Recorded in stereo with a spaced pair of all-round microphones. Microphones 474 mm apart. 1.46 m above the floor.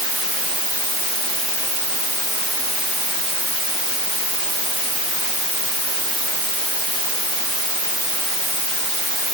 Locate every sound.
Only background noise.